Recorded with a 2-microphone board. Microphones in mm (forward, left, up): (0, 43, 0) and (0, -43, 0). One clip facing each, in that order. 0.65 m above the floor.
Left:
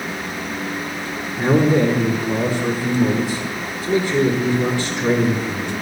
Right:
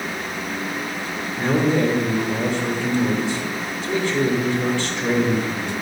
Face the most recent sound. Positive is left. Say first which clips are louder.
# left 3 dB
turn(degrees=15)  # may be behind; listen again after turning